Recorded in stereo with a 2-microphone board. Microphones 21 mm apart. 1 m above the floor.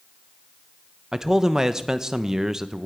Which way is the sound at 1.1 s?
25° right (ahead or behind).